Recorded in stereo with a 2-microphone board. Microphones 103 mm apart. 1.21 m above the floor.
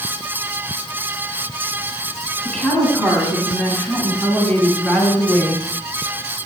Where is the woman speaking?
10° left (ahead or behind), 9.5 m; by 5.7 s 5° left (ahead or behind), 7.5 m.